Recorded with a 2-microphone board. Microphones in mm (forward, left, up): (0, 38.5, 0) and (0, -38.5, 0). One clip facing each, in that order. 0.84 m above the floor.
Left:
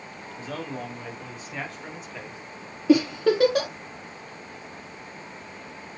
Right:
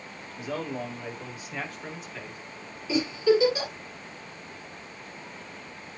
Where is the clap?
No clap in this recording.